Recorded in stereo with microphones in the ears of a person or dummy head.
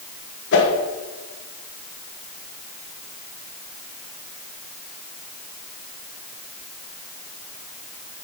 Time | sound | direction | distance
0.5 | a whoosh | 65° left (ahead or behind) | 1.5 m